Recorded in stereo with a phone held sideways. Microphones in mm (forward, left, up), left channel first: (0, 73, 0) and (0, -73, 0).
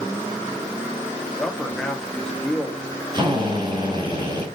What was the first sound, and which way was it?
A man speaking, 5° left (ahead or behind).